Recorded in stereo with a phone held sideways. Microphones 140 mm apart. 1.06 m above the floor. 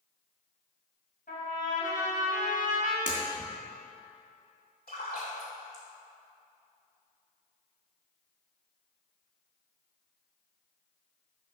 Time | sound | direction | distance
1.3 | a trumpet | 85° left | 3.5 m
3.1 | breaking glass | 70° left (ahead or behind) | 3 m
4.9 | a splash | 75° left (ahead or behind) | 3 m